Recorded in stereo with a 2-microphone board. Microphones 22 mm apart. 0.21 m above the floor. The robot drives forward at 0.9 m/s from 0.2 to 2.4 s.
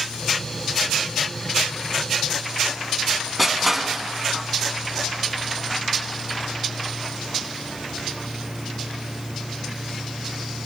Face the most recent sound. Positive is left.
turn(degrees=-5)  # may be behind; listen again after turning